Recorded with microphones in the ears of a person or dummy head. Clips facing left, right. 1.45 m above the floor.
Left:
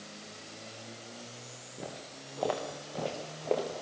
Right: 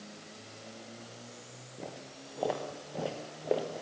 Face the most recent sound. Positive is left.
turn(degrees=-10)  # may be behind; listen again after turning